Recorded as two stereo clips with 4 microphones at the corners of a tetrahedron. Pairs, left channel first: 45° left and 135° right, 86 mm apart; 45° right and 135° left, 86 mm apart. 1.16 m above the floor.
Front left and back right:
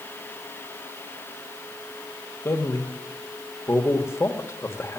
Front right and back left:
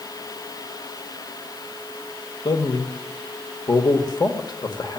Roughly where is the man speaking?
Ahead.